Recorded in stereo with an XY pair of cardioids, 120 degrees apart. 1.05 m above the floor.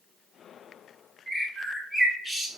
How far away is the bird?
About 1.2 m.